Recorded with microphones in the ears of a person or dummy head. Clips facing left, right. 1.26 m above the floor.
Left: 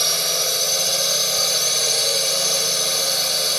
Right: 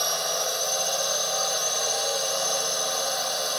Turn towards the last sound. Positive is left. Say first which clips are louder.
# left 2 dB
turn(degrees=30)  # may be behind; listen again after turning